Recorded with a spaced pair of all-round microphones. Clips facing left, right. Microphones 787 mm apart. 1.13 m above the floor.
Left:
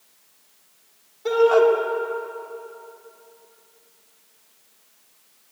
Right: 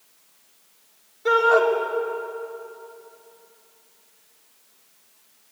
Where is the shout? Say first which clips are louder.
Left 4 dB; 5° right (ahead or behind), 2.5 m.